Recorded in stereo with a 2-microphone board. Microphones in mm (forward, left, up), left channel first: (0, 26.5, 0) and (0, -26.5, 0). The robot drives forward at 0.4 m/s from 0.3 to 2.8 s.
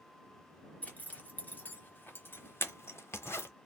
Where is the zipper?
30° left (ahead or behind), 1.3 m; by 3.5 s 55° left (ahead or behind), 0.8 m.